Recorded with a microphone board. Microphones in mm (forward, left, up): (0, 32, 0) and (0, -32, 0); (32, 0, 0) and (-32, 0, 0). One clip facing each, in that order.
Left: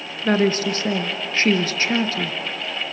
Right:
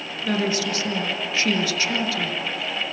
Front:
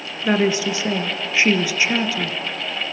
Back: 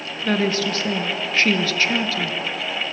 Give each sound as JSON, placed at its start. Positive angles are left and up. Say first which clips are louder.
{"t": 0.2, "sound": "a woman speaking", "louder": "left 5 dB, front 2 dB", "azimuth_deg": 70, "distance_m": 1.9}